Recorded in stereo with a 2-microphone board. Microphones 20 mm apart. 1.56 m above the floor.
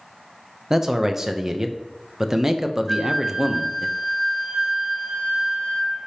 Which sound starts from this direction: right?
A man speaking, at 0.7 s.